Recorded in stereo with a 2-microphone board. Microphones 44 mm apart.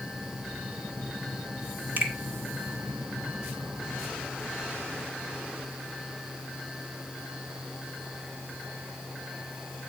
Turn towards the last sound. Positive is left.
turn(degrees=-45)  # may be behind; listen again after turning